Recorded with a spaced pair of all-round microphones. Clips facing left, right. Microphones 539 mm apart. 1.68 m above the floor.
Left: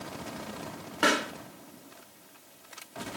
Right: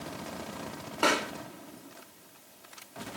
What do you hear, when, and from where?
1.0 s a pop: 40° left (ahead or behind), 1.4 m